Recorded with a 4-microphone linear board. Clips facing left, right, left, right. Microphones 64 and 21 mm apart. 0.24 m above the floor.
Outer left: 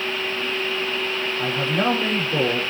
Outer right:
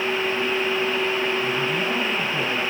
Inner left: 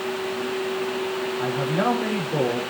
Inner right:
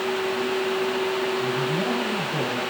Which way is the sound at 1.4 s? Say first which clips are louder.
Outer left 1 dB, inner left 1 dB; 80° left.